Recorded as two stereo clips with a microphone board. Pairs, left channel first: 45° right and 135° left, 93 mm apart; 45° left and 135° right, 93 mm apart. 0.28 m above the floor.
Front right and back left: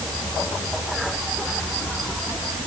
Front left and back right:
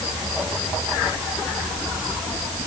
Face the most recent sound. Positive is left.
No sound to turn to.